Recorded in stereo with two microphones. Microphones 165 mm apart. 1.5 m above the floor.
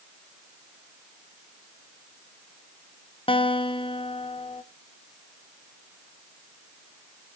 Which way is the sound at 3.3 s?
30° left (ahead or behind).